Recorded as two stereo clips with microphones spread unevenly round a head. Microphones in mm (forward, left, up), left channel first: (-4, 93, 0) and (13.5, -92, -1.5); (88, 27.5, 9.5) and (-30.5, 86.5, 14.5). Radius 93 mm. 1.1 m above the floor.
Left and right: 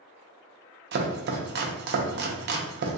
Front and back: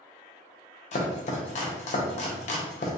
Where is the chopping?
60° right, 0.6 m.